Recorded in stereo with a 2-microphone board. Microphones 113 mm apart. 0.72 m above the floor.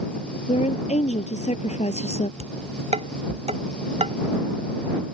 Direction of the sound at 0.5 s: 85° left.